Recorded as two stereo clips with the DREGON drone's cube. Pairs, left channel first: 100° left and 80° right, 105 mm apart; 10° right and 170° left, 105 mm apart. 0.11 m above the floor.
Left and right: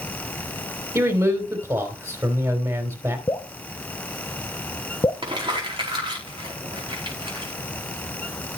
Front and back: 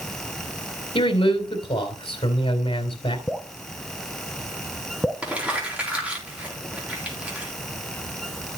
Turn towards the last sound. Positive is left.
turn(degrees=-110)